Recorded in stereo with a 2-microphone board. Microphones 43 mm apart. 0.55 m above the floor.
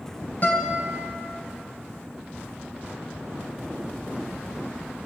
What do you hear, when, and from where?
0.4 s a guitar: 35° left (ahead or behind), 3.5 m